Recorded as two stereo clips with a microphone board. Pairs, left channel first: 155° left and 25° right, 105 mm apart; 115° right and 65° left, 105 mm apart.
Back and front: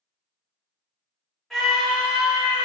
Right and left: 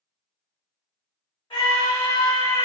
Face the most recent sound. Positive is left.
turn(degrees=-85)